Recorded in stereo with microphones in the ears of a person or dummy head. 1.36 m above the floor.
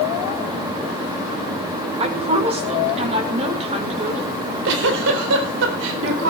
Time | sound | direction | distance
2.0 | a woman speaking | 25° right (ahead or behind) | 5 m
4.3 | a giggle | 65° right (ahead or behind) | 3.5 m